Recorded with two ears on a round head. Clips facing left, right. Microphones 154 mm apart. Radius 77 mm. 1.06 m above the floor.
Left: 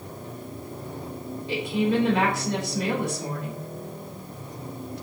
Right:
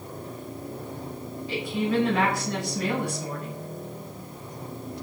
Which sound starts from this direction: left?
A woman speaking, at 1.5 s.